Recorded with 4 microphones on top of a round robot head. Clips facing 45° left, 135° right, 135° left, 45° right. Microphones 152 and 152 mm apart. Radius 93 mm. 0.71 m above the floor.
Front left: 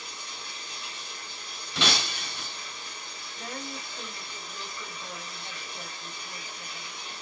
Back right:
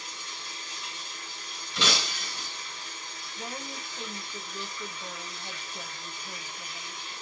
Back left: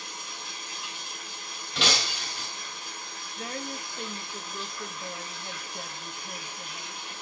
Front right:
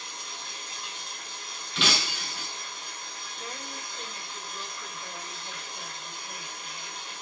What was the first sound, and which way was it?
Running water, 50° left.